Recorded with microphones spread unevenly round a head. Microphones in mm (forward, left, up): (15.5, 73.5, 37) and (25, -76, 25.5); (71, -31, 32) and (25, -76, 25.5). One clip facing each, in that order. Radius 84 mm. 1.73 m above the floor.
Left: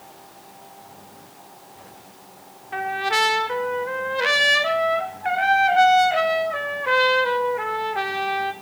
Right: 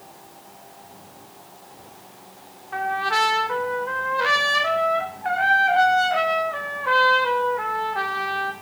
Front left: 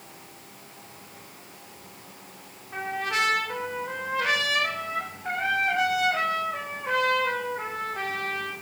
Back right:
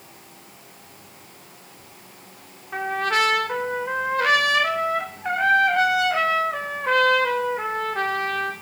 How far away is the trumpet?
About 1.0 m.